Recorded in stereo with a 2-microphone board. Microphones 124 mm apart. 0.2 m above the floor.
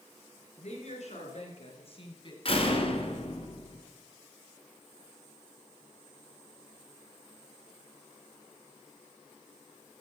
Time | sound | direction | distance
0.6 | a woman speaking | 65° left (ahead or behind) | 3.5 m
2.5 | a door slam | 50° left (ahead or behind) | 1.9 m